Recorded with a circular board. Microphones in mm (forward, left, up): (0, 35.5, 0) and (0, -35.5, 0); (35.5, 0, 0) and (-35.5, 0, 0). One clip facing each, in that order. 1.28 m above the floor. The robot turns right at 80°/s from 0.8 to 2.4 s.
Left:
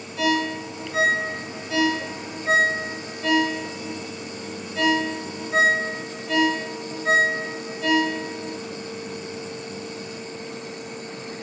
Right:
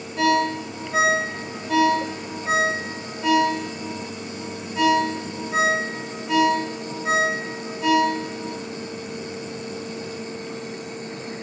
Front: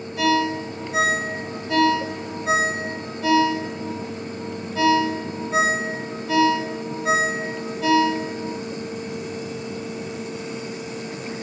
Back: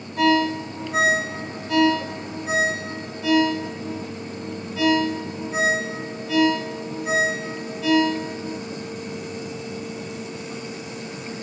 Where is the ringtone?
135° right, 1.0 m; by 8.5 s 10° right, 1.0 m.